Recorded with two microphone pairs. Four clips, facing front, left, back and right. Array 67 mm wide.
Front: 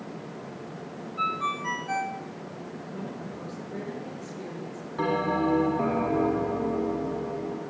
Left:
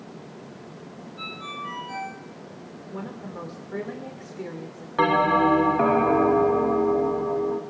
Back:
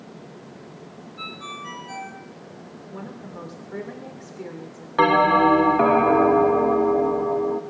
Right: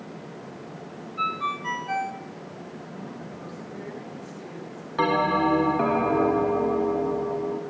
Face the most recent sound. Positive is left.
turn(degrees=165)